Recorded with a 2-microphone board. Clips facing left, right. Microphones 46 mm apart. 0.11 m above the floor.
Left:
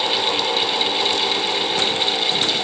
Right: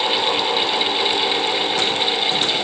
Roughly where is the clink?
I don't hear a clink.